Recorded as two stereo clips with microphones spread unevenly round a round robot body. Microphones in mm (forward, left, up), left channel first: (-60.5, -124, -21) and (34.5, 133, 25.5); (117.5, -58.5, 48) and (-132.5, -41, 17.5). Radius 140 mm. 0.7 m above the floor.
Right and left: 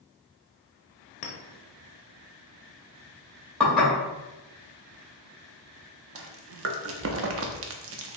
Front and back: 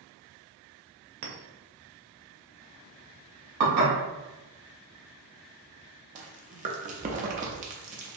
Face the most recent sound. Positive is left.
turn(degrees=115)